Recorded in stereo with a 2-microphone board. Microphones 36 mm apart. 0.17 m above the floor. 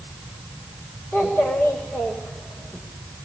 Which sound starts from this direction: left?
A child speaking, at 1.1 s.